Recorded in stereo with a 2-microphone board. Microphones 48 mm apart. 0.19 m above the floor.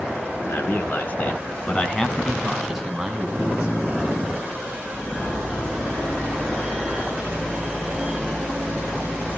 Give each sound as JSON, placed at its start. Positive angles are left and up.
{"t": 0.5, "sound": "a man speaking", "side_deg": 45, "distance_m": 2.5}